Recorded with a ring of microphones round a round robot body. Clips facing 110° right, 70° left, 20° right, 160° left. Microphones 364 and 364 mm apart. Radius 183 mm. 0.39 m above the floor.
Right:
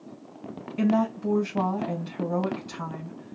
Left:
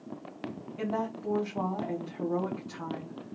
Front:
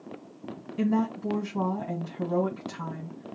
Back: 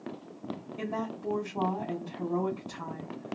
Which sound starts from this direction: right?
A woman speaking, at 0.8 s.